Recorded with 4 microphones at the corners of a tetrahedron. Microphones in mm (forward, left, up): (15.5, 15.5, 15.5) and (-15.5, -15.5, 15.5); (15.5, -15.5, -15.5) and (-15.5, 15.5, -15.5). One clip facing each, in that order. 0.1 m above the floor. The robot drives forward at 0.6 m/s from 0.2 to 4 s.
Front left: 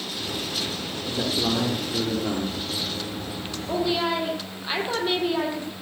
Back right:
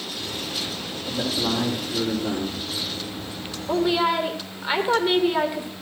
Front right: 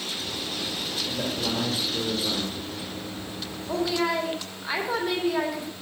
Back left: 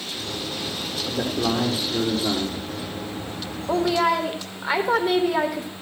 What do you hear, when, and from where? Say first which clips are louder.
1.1 s a man speaking: even, back left 7 dB; 120° left, 4.5 m; by 2.7 s 130° left, 5 m
3.7 s a woman speaking: back right 3 dB, back left 5 dB; 150° left, 3.5 m